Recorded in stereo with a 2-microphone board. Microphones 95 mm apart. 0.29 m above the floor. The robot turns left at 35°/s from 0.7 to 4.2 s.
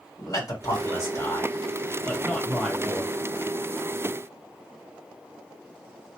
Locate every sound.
0.2 s a man speaking: 80° left, 1.7 m; by 3.1 s 5° right, 1.7 m